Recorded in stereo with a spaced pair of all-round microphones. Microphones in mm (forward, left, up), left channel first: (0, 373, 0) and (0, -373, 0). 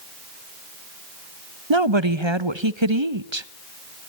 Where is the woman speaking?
40° right (ahead or behind), 1.0 m.